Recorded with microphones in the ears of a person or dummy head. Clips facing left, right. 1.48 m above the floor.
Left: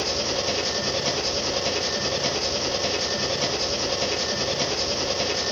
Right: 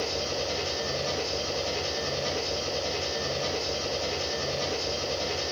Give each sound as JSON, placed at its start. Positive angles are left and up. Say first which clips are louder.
{"t": 0.0, "sound": "an engine running", "louder": "left 4 dB", "side_deg": 85, "distance_m": 1.5}